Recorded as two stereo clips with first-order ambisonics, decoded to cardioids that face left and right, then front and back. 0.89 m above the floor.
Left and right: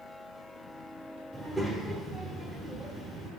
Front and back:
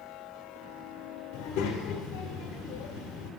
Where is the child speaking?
Straight ahead, 1.3 m.